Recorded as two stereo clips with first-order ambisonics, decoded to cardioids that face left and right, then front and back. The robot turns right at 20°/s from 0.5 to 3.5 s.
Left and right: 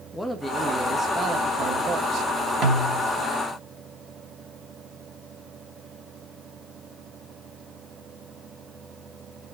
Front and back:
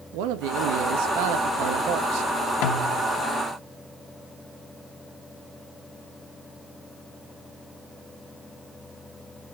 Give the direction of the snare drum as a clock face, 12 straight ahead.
1 o'clock.